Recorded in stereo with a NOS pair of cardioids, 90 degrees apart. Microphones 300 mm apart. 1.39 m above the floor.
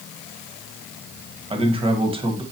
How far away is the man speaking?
About 1.3 m.